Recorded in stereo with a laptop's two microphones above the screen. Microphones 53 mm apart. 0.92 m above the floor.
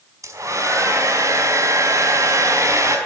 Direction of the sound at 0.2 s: 85° right.